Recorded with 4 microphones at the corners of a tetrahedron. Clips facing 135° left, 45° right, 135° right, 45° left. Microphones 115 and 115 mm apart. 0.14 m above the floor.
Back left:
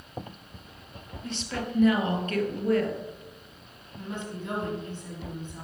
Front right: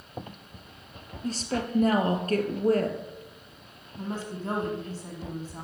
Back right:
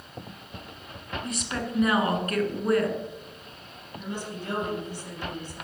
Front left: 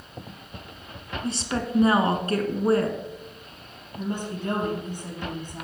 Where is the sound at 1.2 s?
5° right, 1.9 m.